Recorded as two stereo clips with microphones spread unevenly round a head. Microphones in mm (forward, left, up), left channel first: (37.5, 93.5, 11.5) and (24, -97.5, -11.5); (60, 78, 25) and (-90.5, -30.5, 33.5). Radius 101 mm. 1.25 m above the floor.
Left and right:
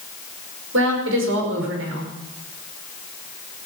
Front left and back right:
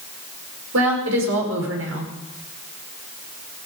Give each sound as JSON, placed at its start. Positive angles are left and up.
{"t": 0.7, "sound": "a woman speaking", "azimuth_deg": -125, "distance_m": 5.5}